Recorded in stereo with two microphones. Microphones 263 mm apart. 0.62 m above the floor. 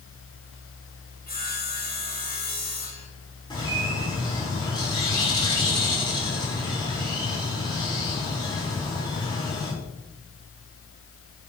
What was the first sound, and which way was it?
Sawing, 35° left (ahead or behind).